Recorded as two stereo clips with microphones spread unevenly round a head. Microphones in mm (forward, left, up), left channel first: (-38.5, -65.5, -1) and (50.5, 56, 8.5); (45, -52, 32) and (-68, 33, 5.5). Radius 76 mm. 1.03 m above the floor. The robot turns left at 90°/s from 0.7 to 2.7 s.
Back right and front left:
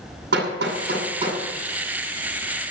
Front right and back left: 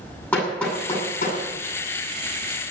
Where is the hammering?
45° left, 9.5 m; by 1.4 s 20° right, 9.5 m.